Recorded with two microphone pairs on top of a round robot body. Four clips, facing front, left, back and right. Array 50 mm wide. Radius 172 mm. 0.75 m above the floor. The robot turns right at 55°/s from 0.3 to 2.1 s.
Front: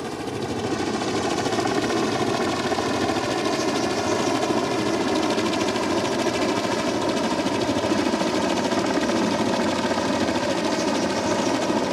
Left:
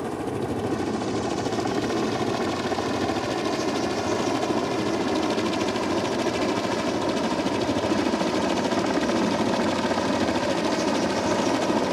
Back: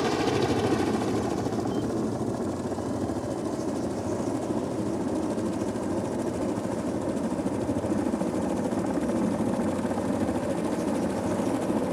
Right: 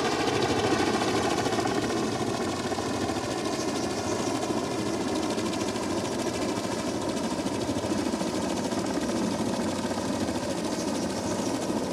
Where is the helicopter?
100° right; by 11.9 s 45° left.